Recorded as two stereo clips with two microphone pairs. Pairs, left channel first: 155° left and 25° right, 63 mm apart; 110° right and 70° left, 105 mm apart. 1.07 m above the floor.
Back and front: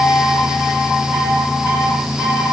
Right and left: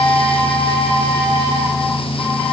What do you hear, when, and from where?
Only background noise.